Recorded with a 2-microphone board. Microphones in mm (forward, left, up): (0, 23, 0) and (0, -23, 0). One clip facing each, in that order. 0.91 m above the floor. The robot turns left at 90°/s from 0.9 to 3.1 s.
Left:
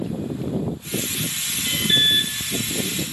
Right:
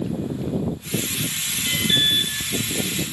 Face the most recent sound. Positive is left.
turn(degrees=55)